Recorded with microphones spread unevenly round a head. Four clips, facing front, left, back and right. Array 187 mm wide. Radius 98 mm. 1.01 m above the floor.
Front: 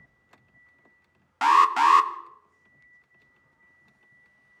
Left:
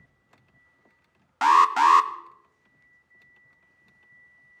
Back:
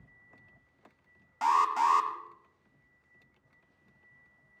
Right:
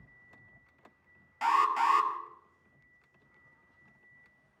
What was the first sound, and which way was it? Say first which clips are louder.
An alarm: left 9 dB, front 7 dB; 55° left.